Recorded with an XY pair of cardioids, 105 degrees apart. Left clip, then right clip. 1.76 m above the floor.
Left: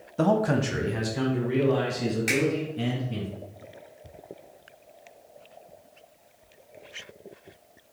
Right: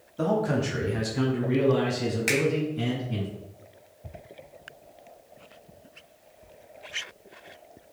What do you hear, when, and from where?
0.2 s a man speaking: 50° left, 0.5 m; by 3.3 s 15° right, 2.5 m
2.3 s a finger snap: 40° right, 1.4 m